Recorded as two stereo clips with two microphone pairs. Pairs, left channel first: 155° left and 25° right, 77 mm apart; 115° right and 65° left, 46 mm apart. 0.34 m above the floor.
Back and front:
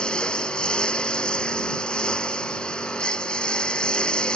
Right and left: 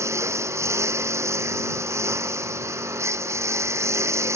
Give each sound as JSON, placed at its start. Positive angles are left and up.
{"t": 0.0, "sound": "a lawn mower", "azimuth_deg": 75}